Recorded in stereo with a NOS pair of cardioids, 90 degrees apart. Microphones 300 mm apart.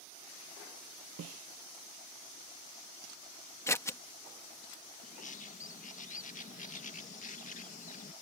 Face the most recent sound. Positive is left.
turn(degrees=25)